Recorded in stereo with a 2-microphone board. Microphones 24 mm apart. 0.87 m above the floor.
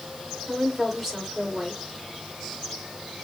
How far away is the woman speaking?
About 3 m.